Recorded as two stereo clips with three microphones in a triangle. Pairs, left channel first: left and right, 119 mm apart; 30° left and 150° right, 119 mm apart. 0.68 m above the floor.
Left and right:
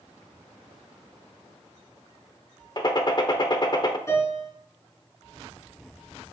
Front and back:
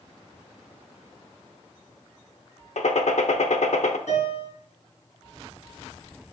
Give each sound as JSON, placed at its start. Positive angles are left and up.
{"t": 2.8, "sound": "a gunshot", "azimuth_deg": 40, "distance_m": 0.7}
{"t": 4.1, "sound": "a piano", "azimuth_deg": 25, "distance_m": 4.5}